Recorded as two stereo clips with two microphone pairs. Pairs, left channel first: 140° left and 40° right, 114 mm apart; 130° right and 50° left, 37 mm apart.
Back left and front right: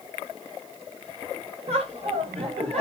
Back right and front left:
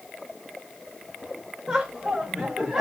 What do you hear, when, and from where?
1.7 s laughter: 35° right, 2.5 m; by 2.8 s 30° right, 4 m